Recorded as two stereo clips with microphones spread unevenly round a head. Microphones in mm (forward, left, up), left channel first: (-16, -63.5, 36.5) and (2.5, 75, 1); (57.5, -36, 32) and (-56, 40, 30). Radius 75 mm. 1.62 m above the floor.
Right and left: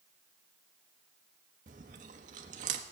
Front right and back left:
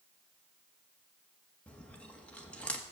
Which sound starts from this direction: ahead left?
Chewing, at 1.7 s.